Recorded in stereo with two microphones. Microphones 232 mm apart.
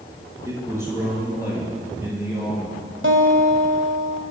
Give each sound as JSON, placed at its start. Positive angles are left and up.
{"t": 0.5, "sound": "a man speaking", "side_deg": -10, "distance_m": 7.0}
{"t": 3.0, "sound": "a guitar", "side_deg": -60, "distance_m": 1.6}